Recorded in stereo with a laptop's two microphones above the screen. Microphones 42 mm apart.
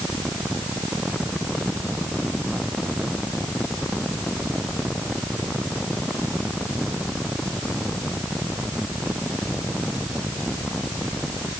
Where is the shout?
No shout in this recording.